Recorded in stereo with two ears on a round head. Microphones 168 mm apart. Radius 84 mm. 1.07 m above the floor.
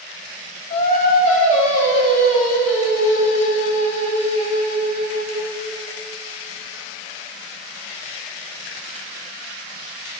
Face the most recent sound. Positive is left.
turn(degrees=40)  # may be behind; listen again after turning